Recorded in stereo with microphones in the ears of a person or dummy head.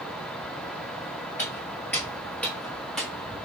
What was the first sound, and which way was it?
Footsteps, 10° left (ahead or behind).